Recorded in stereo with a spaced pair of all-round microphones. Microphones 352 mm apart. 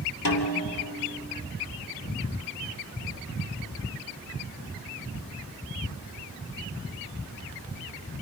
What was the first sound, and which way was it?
A snare drum, 65° left (ahead or behind).